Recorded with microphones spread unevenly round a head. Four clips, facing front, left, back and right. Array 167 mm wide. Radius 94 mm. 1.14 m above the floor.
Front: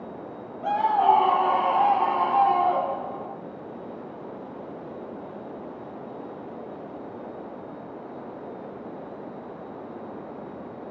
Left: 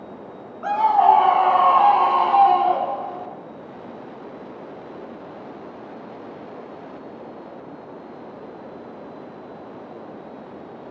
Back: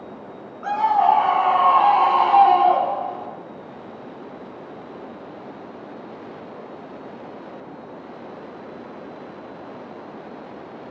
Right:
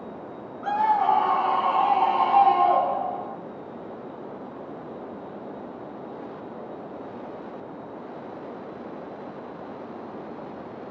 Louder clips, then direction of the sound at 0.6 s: Left 6 dB, back 3 dB; 80° left.